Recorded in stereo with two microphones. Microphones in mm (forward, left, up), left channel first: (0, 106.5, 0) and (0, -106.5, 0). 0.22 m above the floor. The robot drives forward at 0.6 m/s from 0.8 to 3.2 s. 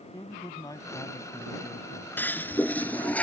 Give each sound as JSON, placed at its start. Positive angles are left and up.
{"t": 0.1, "sound": "a man speaking", "side_deg": 15}
{"t": 2.2, "sound": "a toilet flushing", "side_deg": 10}